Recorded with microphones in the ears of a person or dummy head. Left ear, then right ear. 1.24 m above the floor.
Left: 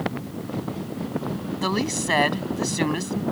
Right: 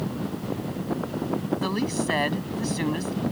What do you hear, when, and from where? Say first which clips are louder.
1.6 s a woman speaking: left 2 dB; 15° left (ahead or behind)